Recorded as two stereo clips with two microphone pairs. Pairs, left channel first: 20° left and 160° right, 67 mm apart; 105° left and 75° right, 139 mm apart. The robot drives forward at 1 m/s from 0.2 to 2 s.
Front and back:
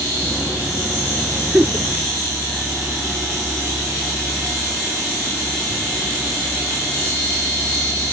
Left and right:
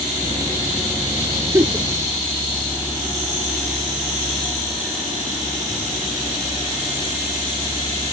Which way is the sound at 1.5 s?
110° right.